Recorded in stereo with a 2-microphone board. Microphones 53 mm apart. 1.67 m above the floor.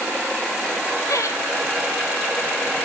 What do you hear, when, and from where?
1.1 s laughter: 85° left, 2.5 m